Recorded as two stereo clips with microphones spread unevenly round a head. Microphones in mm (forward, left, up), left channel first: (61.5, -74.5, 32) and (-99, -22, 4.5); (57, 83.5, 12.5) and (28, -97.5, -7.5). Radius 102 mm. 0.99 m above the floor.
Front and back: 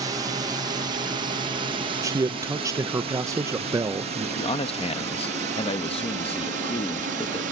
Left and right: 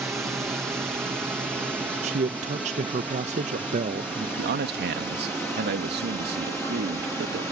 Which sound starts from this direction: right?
A man speaking, at 4.4 s.